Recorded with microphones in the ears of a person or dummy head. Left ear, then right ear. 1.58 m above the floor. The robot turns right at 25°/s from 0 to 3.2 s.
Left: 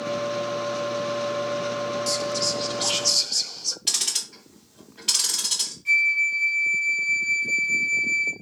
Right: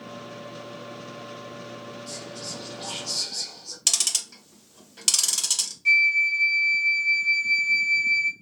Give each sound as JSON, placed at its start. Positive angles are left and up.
{"t": 2.1, "sound": "whispering", "side_deg": 30, "distance_m": 0.6}
{"t": 3.9, "sound": "ticking", "side_deg": -85, "distance_m": 1.3}
{"t": 5.8, "sound": "a flute", "side_deg": -55, "distance_m": 0.9}